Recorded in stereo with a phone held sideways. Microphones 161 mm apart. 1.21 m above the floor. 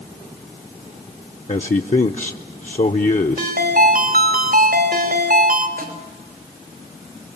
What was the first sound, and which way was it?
A man speaking, 50° left (ahead or behind).